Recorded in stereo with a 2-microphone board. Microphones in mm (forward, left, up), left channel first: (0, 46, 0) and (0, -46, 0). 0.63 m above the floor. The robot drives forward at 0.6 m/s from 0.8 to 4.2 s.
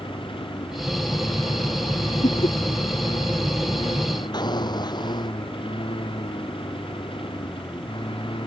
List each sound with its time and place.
0.0 s a lawn mower: 85° left; by 8.5 s 90° left
2.2 s laughter: 80° left
4.3 s an explosion: 55° left (ahead or behind)